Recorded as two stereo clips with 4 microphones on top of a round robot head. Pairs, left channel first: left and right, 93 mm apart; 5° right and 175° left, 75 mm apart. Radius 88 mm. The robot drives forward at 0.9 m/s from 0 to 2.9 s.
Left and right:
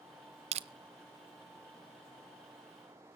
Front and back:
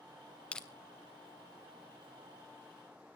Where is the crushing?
80° right, 0.7 m; by 0.7 s 95° right, 0.7 m.